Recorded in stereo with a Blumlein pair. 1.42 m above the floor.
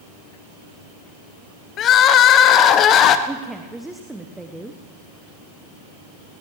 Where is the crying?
30° left, 0.8 m.